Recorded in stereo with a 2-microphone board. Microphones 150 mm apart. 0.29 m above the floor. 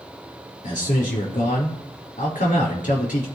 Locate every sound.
0.6 s a man speaking: 70° left (ahead or behind), 4.5 m